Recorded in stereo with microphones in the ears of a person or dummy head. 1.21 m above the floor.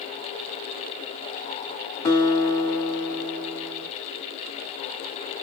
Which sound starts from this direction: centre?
A guitar, at 2.0 s.